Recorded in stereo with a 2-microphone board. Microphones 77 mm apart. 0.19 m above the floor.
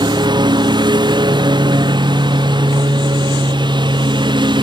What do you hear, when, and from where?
0.0 s a lawn mower: 70° right (ahead or behind); by 4.6 s 80° right